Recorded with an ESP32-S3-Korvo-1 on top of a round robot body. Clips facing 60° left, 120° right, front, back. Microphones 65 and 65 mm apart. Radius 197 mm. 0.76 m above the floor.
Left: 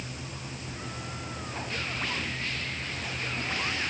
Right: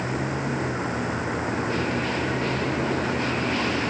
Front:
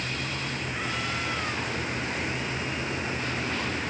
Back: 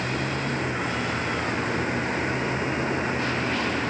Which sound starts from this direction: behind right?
A vehicle, at 0.0 s.